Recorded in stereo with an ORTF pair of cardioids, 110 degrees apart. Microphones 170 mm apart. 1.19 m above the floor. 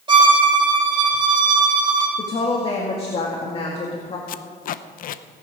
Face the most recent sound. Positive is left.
turn(degrees=55)